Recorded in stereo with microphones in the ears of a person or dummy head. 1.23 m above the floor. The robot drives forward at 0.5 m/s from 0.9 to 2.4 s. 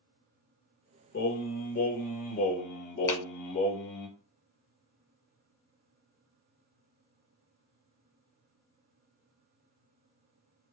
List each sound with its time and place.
1.1 s singing: 55° left (ahead or behind), 1.5 m; by 4.1 s 40° left (ahead or behind), 1.9 m
3.1 s a clap: 15° left (ahead or behind), 0.9 m